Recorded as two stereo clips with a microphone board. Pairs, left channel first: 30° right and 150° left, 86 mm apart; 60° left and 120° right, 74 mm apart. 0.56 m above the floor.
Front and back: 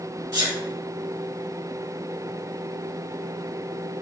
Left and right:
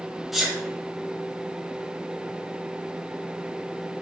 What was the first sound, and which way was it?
A sneeze, 155° left.